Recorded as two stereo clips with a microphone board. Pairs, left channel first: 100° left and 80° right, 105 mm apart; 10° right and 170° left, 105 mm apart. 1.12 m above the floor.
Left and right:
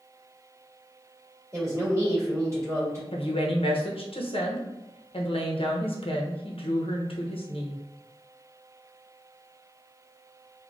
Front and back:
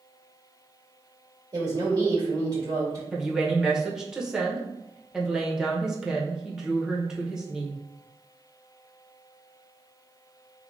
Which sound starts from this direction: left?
A woman speaking, at 3.1 s.